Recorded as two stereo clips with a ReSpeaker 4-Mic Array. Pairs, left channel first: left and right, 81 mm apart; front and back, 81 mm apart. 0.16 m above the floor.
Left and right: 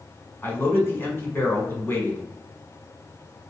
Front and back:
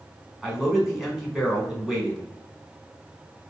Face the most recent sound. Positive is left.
turn(degrees=100)